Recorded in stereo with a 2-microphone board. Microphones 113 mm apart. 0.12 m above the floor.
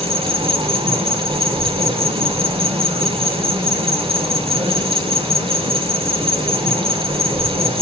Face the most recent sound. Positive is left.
turn(degrees=-55)  # may be behind; listen again after turning